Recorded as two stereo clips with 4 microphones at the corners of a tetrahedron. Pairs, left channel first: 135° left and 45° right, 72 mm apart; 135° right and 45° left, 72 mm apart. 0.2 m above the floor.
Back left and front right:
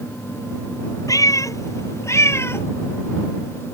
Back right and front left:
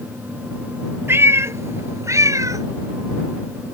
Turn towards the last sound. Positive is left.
turn(degrees=80)